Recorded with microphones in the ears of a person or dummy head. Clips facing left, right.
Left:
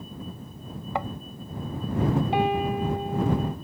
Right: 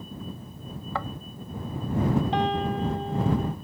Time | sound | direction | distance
0.9 | a thud | 20° left (ahead or behind) | ?
2.3 | a piano | 15° left (ahead or behind) | ?